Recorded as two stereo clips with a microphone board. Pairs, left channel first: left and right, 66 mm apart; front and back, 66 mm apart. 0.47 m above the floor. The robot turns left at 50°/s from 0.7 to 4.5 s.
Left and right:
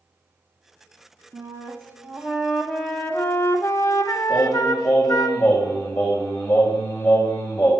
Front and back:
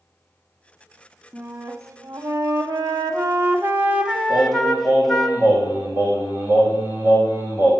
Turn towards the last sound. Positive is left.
turn(degrees=125)